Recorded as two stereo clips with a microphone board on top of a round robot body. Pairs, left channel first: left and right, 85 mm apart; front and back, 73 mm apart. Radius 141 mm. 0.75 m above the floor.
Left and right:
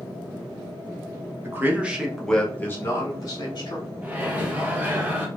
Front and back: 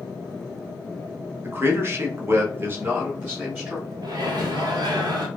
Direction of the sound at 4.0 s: 160° right.